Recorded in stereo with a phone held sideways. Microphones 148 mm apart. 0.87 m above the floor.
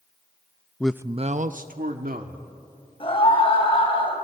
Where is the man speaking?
10° left (ahead or behind), 0.5 m; by 2.5 s 80° right, 2 m.